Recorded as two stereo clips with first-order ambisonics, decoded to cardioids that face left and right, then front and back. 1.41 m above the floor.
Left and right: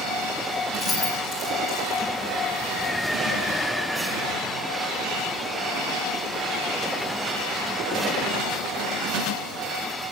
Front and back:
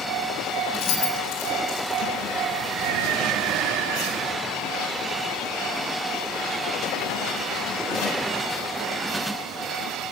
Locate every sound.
0.7 s keys jangling: 10° left, 9 m